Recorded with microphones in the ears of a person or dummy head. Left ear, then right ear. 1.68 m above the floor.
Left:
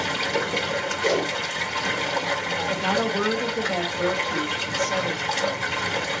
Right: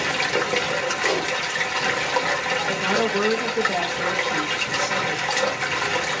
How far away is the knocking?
No knocking in this recording.